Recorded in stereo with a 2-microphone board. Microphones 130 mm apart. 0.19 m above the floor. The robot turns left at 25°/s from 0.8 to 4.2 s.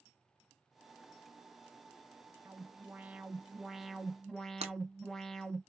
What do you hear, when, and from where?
2.5 s an alarm: 15° right (ahead or behind), 0.8 m; by 5.6 s 5° left (ahead or behind), 0.8 m
4.6 s breaking glass: 55° right (ahead or behind), 0.7 m